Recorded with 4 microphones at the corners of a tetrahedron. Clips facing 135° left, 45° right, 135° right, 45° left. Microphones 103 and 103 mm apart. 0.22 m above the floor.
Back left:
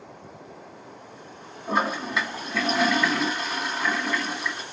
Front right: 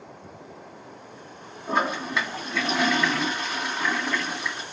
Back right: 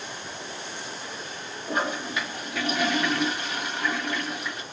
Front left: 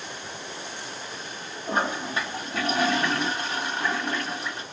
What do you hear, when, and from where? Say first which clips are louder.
1.7 s a toilet flushing: even, front left 1 dB; 50° left, 1.1 m